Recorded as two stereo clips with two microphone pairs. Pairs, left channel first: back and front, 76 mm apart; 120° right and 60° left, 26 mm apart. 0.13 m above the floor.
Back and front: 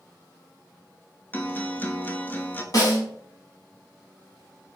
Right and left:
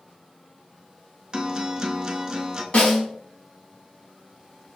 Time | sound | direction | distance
1.3 | a guitar | 120° left | 0.6 m
2.7 | a snare drum | 150° right | 1.9 m